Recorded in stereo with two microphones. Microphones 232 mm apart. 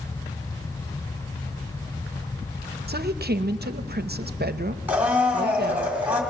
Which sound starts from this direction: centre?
A blender, at 4.9 s.